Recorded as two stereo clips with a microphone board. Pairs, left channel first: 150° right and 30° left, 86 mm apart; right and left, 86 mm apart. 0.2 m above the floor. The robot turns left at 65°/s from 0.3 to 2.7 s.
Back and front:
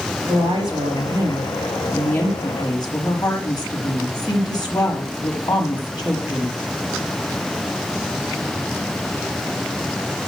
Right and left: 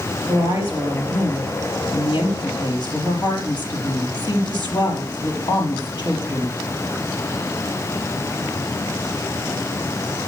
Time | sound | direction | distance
0.3 | a woman speaking | 45° left | 4.5 m